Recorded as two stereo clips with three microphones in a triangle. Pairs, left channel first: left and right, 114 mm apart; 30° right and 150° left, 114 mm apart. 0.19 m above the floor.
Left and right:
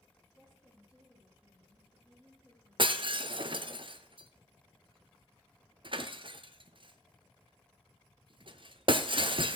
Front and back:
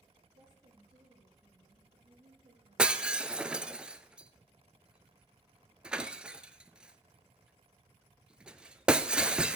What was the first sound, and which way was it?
A woman speaking, 165° right.